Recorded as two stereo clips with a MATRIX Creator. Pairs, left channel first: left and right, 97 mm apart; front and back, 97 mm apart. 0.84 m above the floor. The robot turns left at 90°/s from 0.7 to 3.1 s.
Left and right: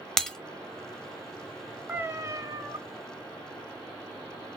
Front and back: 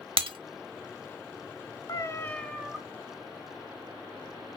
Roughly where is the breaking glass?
Behind.